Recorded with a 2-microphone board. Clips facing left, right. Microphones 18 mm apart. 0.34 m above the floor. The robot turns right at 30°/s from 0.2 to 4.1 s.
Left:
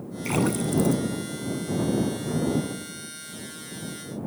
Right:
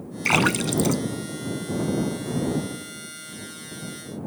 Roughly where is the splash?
Right.